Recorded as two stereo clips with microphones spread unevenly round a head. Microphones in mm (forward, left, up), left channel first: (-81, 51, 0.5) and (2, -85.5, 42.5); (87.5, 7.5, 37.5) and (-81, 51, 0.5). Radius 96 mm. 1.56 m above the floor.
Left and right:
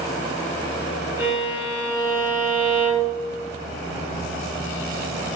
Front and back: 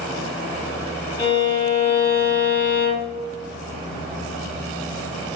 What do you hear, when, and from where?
1.2 s a violin: 5° right, 1.5 m